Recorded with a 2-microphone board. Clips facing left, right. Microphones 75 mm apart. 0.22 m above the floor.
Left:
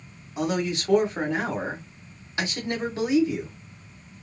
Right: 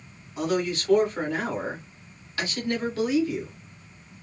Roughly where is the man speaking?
Left.